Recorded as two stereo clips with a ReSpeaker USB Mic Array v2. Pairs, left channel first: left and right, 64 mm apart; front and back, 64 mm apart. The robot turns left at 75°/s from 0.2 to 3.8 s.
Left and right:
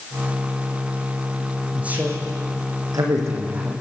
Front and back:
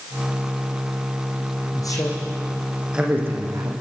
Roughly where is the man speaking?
Ahead.